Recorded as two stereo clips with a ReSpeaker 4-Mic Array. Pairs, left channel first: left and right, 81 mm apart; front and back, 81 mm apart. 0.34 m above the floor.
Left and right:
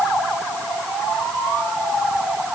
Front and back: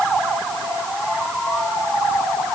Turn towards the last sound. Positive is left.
No sound to turn to.